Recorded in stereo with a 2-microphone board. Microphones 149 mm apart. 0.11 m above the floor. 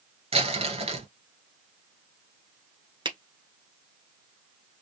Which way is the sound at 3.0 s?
35° right (ahead or behind).